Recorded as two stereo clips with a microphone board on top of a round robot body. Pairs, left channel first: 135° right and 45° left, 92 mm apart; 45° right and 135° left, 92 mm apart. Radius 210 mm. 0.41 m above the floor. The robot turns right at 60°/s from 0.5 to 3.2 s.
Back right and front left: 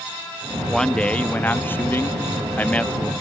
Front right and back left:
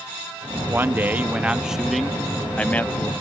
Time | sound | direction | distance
0.7 | a man speaking | 145° left | ?